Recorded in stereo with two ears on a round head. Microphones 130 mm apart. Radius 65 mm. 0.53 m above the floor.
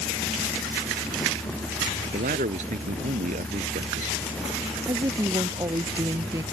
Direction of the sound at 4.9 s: 20° right (ahead or behind).